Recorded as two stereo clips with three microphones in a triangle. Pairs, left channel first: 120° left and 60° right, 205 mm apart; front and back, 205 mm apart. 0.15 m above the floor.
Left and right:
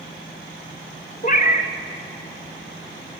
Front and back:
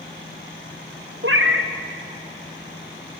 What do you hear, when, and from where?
1.2 s a cat meowing: 170° left, 1.3 m